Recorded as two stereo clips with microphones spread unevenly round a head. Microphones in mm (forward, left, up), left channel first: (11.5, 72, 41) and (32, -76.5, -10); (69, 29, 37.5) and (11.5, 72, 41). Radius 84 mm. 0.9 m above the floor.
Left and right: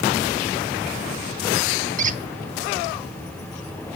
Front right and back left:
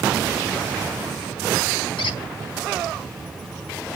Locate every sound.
2.0 s a squeak: 40° right, 1.3 m